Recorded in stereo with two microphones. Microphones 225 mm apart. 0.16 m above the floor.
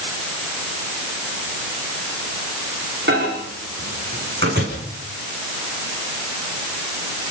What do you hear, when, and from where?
3.1 s a microwave: 50° right (ahead or behind), 8 m